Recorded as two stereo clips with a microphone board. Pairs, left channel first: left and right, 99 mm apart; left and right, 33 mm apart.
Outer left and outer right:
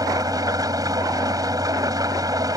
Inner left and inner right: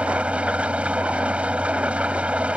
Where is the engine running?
40° right (ahead or behind).